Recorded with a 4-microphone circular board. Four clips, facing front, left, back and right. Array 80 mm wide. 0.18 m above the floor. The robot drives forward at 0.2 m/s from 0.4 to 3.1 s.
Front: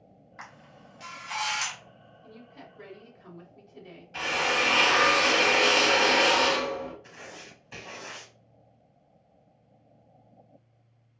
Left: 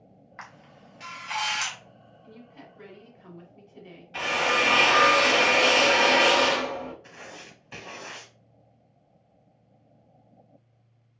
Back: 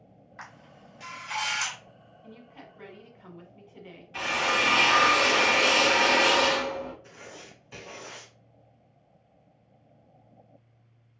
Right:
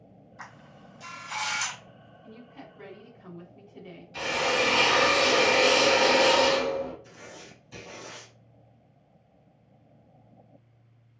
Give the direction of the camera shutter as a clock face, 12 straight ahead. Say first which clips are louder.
Left 1 dB, even; 9 o'clock.